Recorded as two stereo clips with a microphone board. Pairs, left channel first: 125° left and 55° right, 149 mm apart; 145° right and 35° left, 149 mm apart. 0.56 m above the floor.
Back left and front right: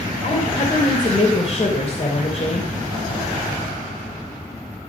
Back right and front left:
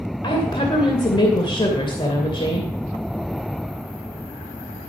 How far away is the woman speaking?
About 2.5 m.